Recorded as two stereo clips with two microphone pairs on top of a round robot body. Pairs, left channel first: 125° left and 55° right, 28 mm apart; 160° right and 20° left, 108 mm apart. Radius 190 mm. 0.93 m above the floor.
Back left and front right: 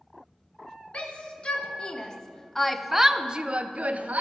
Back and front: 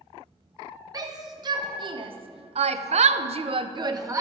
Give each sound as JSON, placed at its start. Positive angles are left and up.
{"t": 0.9, "sound": "a shout", "azimuth_deg": 75, "distance_m": 1.4}